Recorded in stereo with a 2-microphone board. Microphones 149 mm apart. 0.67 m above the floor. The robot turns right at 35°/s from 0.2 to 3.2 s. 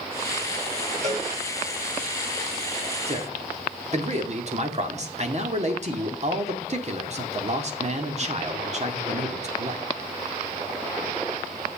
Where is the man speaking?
40° right (ahead or behind), 1.7 m; by 9.8 s 45° right (ahead or behind), 1.7 m.